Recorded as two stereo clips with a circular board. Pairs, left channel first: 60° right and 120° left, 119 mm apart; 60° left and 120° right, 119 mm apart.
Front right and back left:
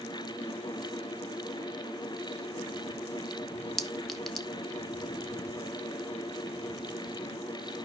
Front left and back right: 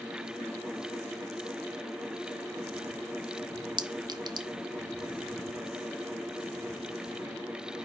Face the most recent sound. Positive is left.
turn(degrees=-150)